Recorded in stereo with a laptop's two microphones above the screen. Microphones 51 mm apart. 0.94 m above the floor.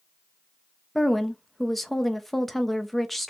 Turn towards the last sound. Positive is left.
turn(degrees=5)  # may be behind; listen again after turning